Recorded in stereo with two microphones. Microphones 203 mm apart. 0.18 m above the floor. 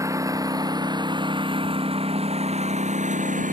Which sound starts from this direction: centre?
A lawn mower, at 0.0 s.